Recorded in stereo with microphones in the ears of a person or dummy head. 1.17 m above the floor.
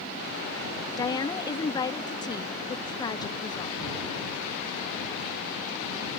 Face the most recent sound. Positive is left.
turn(degrees=20)  # may be behind; listen again after turning